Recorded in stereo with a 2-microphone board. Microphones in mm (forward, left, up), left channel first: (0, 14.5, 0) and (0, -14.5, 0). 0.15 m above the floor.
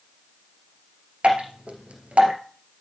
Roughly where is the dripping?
Right.